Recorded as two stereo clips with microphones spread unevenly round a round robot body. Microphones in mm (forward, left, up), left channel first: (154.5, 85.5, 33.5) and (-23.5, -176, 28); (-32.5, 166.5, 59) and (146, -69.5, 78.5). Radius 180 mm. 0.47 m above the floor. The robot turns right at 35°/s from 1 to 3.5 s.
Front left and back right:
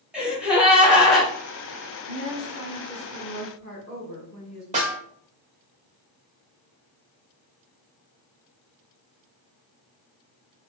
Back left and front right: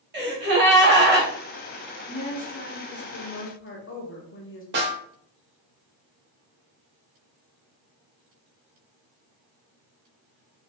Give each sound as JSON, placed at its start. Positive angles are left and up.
{"t": 0.1, "sound": "a gasp", "azimuth_deg": -40, "distance_m": 1.0}
{"t": 2.1, "sound": "a woman speaking", "azimuth_deg": 65, "distance_m": 1.0}
{"t": 4.7, "sound": "a snare drum", "azimuth_deg": -75, "distance_m": 1.2}